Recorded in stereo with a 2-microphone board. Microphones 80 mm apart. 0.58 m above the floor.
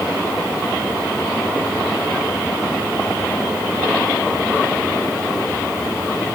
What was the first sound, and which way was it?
Only background noise.